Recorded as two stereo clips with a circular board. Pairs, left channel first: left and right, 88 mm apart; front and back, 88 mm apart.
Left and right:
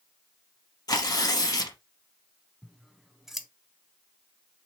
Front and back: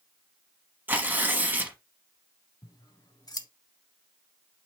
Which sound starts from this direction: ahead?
Scissors, at 2.6 s.